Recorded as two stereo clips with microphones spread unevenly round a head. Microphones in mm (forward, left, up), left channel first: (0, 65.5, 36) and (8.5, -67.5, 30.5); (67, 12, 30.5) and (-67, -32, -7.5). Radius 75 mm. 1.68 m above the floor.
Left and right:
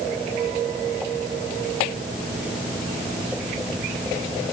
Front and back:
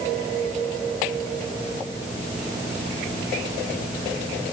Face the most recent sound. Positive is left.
No sound to turn to.